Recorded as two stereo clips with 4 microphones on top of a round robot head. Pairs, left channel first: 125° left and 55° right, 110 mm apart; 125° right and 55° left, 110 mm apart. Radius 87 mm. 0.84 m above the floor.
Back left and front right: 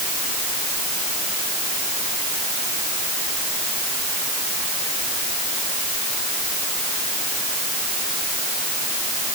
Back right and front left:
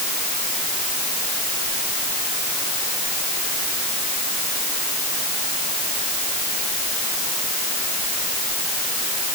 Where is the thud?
I don't hear a thud.